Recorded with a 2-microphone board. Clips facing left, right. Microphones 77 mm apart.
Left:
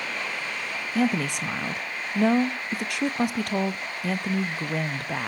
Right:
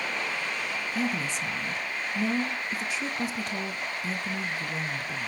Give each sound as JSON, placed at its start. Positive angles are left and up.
{"t": 0.9, "sound": "a woman speaking", "side_deg": 70, "distance_m": 0.7}